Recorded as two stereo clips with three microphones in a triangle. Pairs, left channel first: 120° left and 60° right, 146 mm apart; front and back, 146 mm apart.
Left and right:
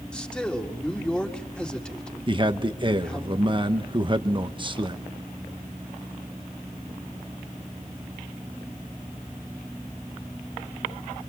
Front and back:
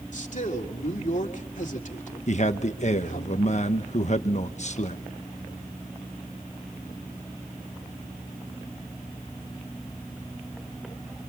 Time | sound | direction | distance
0.1 | a man speaking | 35° left | 2.5 m
2.3 | a man speaking | 15° right | 1.2 m